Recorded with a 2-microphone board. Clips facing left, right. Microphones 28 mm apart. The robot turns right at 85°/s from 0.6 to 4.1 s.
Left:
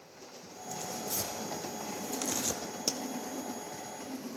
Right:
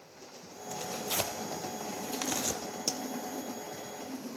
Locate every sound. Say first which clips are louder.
0.7 s tearing paper: right 4 dB; 30° right (ahead or behind), 2.5 m; by 2.6 s 10° left (ahead or behind), 2.5 m
2.9 s a pop: even; 5° left (ahead or behind), 1.8 m; by 3.0 s 5° right (ahead or behind), 1.8 m